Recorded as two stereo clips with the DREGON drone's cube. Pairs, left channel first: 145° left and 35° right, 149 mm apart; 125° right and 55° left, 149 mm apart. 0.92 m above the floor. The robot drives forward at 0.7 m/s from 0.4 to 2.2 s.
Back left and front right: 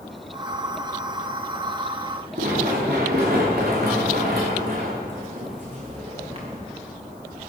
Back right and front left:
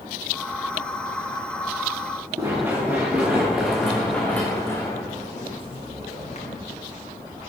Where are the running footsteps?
20° right, 5.5 m; by 6.6 s 85° right, 4 m.